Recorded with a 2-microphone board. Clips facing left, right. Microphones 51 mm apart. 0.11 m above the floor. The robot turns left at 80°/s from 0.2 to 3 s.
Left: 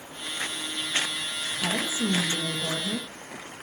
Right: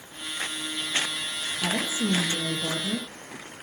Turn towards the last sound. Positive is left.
turn(degrees=-140)